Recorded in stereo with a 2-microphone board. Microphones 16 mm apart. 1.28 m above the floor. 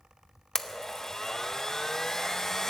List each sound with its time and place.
0.6 s a blender: 40° left (ahead or behind), 0.5 m